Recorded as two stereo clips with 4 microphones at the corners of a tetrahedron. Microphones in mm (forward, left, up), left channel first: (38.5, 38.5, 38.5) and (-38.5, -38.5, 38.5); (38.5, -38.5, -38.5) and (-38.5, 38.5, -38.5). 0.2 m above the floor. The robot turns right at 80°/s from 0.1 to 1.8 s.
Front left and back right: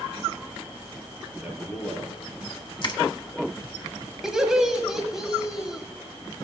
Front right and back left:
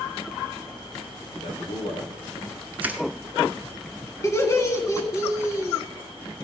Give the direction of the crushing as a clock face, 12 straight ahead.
10 o'clock.